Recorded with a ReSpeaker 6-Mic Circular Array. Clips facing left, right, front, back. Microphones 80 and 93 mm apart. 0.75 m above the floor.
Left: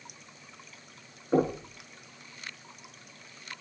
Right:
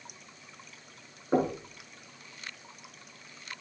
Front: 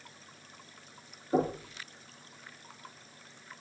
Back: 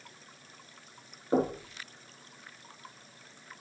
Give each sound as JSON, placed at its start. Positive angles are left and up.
{"t": 1.3, "sound": "knocking", "azimuth_deg": -155, "distance_m": 7.0}